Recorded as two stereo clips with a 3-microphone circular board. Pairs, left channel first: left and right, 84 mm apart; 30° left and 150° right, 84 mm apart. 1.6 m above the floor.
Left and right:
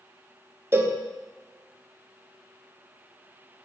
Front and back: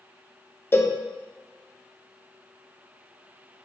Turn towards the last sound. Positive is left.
turn(degrees=-35)